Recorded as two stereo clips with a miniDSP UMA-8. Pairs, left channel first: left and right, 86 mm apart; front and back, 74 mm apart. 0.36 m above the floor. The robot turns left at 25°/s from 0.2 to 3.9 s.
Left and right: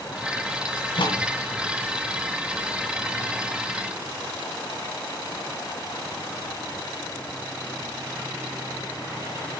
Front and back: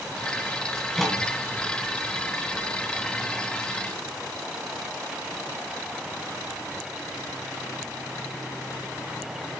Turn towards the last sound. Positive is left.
turn(degrees=15)